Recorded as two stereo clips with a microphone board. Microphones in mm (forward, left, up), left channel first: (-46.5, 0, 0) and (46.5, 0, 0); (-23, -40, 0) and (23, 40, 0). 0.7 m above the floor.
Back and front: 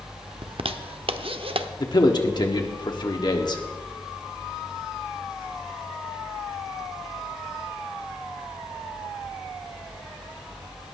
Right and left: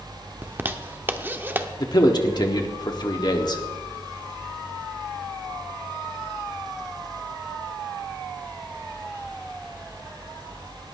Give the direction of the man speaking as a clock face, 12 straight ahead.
5 o'clock.